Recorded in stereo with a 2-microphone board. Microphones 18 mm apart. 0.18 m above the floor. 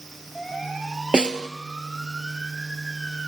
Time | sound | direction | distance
1.1 | a snare drum | 80° right | 0.7 m